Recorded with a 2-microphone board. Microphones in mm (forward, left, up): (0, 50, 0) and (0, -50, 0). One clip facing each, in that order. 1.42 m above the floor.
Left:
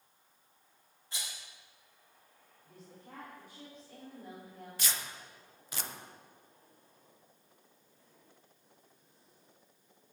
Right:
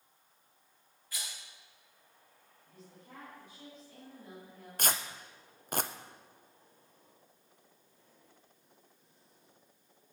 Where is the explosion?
I don't hear an explosion.